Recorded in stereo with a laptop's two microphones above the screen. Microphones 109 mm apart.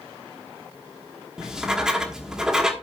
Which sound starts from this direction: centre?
Writing, at 1.4 s.